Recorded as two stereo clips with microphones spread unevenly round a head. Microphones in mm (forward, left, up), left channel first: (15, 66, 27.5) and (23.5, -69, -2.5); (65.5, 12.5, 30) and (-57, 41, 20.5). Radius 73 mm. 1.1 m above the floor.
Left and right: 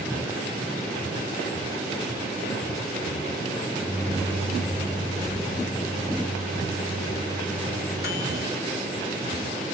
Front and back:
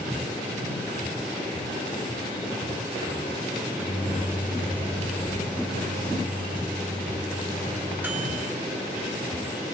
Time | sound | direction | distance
3.6 | a microwave | 90° left | 4.5 m